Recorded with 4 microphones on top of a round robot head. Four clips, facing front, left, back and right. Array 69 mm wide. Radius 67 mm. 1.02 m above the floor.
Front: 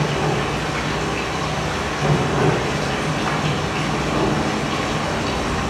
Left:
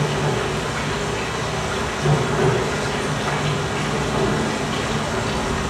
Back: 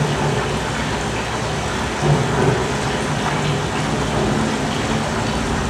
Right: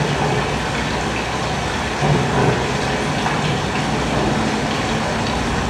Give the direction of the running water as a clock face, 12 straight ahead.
4 o'clock.